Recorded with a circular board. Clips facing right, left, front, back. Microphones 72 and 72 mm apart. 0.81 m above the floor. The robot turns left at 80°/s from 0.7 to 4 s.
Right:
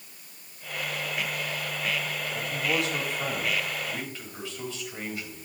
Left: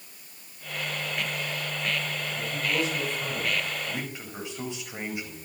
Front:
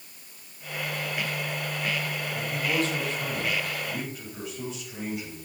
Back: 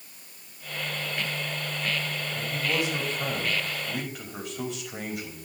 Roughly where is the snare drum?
No snare drum in this recording.